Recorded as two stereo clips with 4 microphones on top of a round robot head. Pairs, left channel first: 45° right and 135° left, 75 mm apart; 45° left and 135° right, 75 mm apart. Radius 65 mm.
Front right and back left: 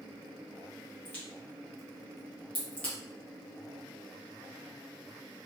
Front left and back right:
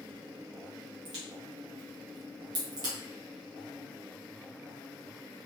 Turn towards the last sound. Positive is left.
turn(degrees=-115)